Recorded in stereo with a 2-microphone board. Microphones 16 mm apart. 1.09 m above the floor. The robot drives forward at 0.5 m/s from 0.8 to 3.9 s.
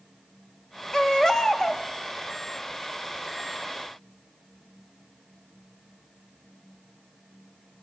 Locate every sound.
0.9 s a baby crying: 40° left (ahead or behind), 1.9 m; by 1.8 s 35° left (ahead or behind), 2 m